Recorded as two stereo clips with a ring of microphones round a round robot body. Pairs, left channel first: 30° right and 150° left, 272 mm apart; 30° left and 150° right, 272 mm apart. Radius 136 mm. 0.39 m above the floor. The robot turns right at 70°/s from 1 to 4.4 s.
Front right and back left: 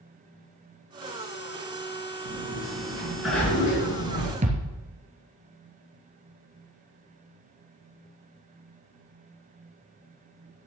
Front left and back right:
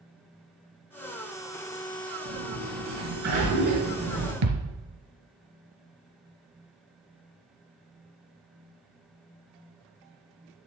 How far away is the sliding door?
About 5 m.